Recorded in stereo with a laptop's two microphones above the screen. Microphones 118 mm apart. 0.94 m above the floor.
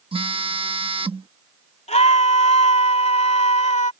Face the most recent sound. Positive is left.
turn(degrees=75)  # may be behind; listen again after turning